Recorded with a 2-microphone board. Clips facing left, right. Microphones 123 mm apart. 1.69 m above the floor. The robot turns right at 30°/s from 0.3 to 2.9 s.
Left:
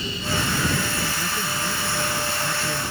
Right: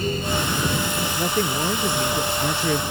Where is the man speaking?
130° right; by 2.8 s 80° right.